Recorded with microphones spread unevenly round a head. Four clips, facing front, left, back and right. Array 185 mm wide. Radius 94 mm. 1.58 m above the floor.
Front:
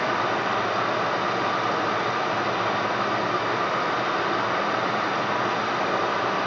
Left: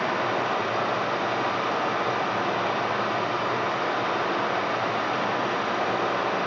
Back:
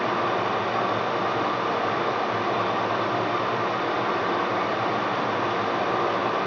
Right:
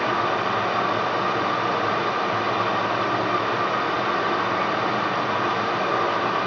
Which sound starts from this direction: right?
Running water, at 0.0 s.